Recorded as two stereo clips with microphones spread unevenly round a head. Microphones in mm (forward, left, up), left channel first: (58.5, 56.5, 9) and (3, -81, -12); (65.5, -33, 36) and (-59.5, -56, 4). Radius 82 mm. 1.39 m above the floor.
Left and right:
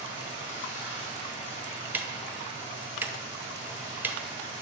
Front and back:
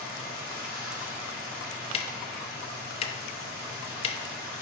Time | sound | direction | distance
0.0 | running water | 165° left | 2.5 m
1.9 | ticking | 35° right | 0.8 m